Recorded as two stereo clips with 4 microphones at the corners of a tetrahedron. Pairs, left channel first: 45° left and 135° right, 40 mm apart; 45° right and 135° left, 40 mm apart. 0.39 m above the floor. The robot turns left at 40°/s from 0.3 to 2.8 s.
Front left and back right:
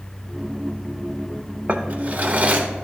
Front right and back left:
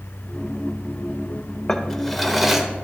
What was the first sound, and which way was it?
A drawer, 110° right.